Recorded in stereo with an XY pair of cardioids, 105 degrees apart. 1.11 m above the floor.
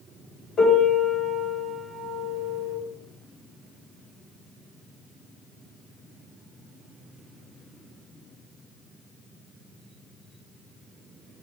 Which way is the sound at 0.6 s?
55° left.